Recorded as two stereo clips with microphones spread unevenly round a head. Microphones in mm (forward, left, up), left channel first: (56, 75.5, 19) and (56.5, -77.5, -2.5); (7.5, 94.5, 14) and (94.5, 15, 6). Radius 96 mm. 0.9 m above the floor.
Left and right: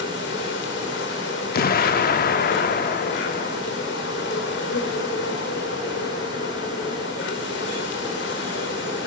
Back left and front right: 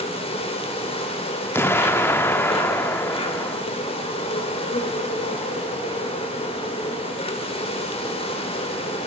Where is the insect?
105° left, 5 m.